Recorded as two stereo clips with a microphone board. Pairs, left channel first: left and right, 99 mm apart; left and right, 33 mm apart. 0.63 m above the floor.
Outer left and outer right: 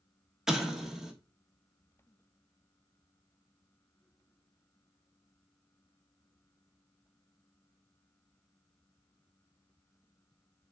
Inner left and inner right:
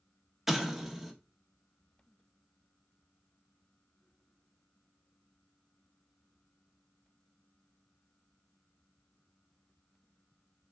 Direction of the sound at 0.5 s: 5° right (ahead or behind).